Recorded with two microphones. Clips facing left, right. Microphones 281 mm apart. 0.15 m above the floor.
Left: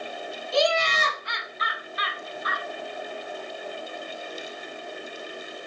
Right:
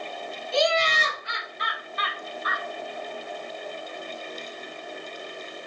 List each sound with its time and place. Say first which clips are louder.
0.5 s laughter: left 1 dB; 30° right (ahead or behind), 1.1 m; by 2.6 s 30° left (ahead or behind), 1.2 m